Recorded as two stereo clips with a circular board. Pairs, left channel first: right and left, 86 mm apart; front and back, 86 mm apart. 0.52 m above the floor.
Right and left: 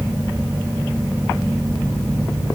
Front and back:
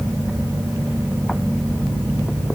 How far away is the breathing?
I don't hear breathing.